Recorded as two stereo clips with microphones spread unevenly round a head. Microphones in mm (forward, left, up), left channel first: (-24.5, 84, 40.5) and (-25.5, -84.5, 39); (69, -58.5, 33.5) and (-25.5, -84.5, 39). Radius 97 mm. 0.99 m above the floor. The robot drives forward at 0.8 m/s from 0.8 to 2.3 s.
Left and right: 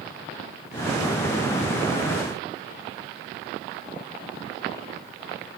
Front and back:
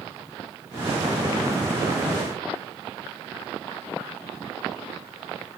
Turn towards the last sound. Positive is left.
No sound to turn to.